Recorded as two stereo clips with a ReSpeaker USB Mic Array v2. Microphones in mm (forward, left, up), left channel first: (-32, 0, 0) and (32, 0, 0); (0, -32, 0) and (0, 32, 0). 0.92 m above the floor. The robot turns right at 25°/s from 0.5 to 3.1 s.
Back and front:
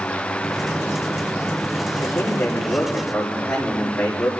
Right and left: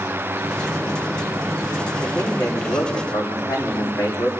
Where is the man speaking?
125° right, 6 m; by 4.3 s 100° right, 6 m.